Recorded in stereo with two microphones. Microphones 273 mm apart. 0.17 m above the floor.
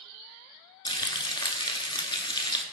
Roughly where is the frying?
Centre.